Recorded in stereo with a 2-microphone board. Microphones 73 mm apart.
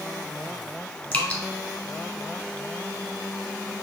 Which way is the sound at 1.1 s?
15° left (ahead or behind).